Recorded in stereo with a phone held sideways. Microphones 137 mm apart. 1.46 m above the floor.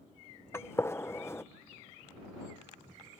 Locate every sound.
0.5 s a gunshot: 20° left (ahead or behind)